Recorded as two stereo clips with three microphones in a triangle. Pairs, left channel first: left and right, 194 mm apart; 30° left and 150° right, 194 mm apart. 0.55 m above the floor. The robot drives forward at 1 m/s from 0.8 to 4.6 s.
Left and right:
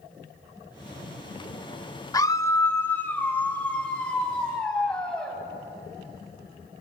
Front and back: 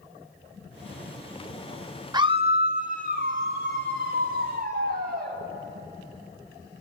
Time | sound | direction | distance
2.1 | a scream | 155° left | 0.8 m